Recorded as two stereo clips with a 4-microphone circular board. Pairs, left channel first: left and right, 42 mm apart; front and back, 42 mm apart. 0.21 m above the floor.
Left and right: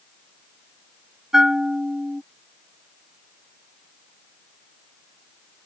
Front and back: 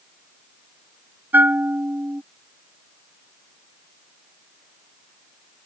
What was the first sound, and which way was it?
A bell, 165° right.